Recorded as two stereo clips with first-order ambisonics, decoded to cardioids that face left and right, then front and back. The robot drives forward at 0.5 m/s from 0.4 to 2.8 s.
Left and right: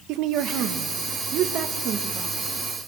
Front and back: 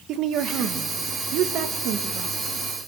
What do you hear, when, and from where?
0.1 s a woman speaking: 130° right, 2.5 m; by 2.3 s 145° right, 3 m